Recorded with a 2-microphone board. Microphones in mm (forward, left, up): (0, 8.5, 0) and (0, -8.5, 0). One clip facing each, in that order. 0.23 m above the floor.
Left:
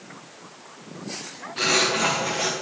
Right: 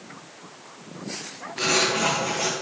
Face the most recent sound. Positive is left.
turn(degrees=55)  # may be behind; listen again after turning